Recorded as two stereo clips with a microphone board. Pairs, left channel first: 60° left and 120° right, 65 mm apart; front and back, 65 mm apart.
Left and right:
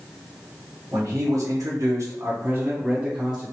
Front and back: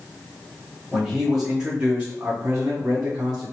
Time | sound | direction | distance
0.9 | a man speaking | 95° right | 1.1 m